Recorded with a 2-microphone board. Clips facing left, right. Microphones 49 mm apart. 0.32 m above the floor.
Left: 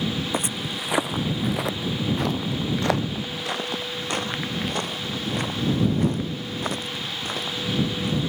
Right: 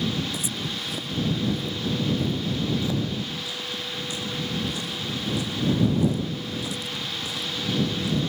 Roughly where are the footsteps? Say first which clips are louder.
Left 3 dB; left.